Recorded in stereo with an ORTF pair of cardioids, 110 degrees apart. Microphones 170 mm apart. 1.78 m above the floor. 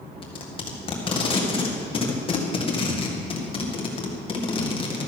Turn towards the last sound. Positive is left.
turn(degrees=30)